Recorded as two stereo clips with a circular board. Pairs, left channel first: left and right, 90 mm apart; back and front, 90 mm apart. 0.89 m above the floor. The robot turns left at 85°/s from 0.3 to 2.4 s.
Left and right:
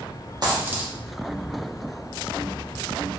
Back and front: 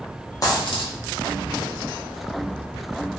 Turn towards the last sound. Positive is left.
turn(degrees=60)